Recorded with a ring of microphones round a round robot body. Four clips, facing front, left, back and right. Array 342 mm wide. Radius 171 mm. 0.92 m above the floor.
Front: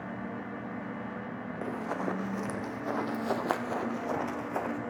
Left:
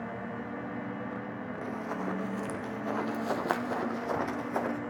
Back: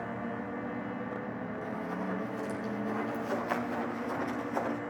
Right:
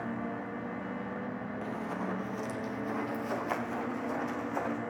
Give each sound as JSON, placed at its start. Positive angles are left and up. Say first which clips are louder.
{"t": 1.6, "sound": "running footsteps", "louder": "left 2 dB, front 5 dB", "azimuth_deg": 15, "distance_m": 1.9}